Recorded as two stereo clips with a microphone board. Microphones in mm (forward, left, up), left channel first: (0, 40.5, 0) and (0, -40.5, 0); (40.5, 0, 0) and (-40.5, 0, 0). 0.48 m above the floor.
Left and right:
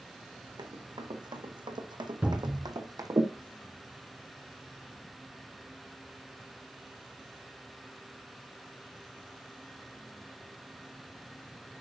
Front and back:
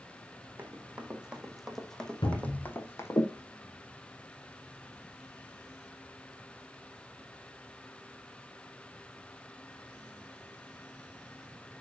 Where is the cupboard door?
20° right, 2.5 m.